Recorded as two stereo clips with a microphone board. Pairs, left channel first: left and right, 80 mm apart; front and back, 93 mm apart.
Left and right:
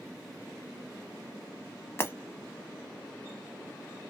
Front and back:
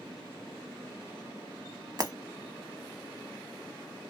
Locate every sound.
2.0 s breaking glass: 140° left, 0.8 m